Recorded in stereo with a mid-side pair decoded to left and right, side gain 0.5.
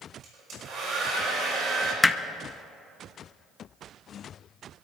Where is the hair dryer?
55° right, 5.5 m.